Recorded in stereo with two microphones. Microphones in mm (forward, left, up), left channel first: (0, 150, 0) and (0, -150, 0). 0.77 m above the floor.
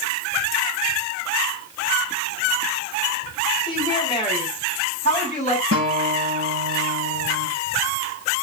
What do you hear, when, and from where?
3.7 s a woman speaking: 15° left (ahead or behind), 5.5 m; by 5.6 s 25° left (ahead or behind), 6 m
5.7 s a guitar: 50° right (ahead or behind), 5.5 m